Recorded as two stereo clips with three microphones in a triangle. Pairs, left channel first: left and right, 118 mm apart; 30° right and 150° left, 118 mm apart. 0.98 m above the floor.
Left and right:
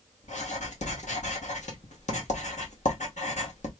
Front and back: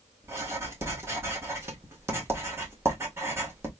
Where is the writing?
80° left, 1.6 m.